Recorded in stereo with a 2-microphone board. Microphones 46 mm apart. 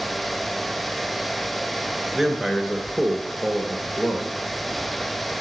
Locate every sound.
2.1 s a man speaking: 10° right (ahead or behind), 1.1 m